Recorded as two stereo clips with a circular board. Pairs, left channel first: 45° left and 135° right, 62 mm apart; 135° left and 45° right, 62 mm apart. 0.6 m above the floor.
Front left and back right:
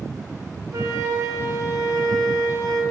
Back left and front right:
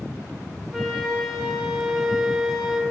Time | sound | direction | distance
0.7 | a flute | 130° right | 0.8 m